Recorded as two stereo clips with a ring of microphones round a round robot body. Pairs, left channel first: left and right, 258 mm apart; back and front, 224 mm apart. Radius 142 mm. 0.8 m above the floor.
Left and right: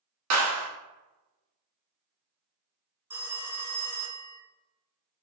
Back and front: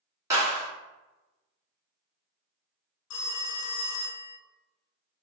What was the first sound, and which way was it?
A clap, 80° right.